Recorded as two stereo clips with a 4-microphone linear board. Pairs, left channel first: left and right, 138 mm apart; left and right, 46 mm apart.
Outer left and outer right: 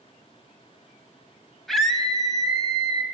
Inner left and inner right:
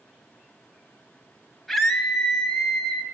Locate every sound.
1.7 s a scream: centre (ahead or behind), 1.4 m